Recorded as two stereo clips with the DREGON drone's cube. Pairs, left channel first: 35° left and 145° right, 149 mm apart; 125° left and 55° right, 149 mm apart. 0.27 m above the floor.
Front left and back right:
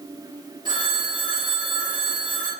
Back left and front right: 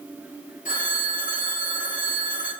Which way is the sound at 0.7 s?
155° left.